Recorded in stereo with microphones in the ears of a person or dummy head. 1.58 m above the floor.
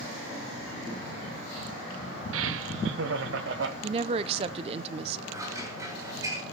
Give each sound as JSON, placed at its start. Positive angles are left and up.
{"t": 2.3, "sound": "laughter", "side_deg": -75, "distance_m": 0.7}
{"t": 3.8, "sound": "a woman speaking", "side_deg": -30, "distance_m": 0.7}
{"t": 5.3, "sound": "scissors", "side_deg": -20, "distance_m": 6.0}